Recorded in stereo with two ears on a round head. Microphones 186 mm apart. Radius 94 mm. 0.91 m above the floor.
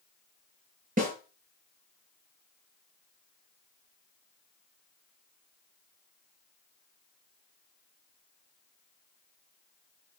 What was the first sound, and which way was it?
A snare drum, 40° right (ahead or behind).